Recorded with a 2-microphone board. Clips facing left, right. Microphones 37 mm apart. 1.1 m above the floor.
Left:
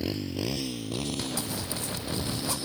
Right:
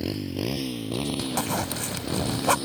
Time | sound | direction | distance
0.0 | a motorcycle | centre (ahead or behind) | ?
1.4 | a zipper | 90° right | ?